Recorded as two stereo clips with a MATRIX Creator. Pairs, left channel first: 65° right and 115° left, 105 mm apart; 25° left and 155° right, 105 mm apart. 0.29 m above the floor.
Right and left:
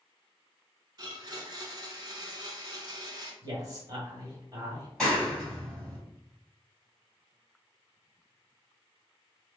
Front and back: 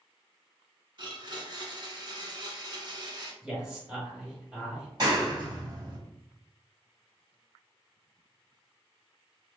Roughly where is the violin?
No violin in this recording.